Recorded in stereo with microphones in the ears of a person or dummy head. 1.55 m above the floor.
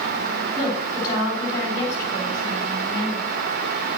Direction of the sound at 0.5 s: 20° left (ahead or behind).